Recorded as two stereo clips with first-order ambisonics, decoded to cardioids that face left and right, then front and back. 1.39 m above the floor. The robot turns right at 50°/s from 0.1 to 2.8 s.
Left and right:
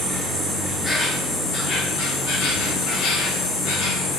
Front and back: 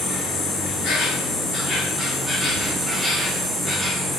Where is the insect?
35° right, 0.7 m; by 4.2 s 100° left, 0.7 m.